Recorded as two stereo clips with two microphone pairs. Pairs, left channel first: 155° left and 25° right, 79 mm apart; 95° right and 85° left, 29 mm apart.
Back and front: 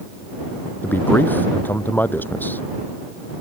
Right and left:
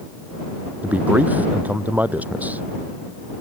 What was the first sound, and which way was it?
A man speaking, 90° left.